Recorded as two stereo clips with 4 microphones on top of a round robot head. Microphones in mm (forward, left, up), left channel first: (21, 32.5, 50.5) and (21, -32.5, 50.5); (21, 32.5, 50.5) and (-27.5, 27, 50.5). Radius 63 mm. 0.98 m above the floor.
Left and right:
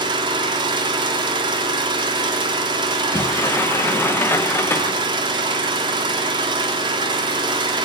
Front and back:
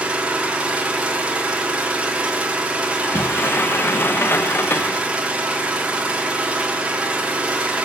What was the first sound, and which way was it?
An engine running, 100° right.